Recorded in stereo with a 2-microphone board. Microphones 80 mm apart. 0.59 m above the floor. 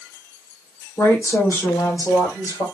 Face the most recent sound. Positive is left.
turn(degrees=55)  # may be behind; listen again after turning